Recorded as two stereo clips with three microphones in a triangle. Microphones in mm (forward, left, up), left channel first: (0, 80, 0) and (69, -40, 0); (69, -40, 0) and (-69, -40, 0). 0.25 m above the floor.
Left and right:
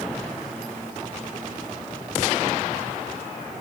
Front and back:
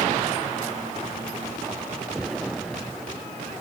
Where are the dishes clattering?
I don't hear dishes clattering.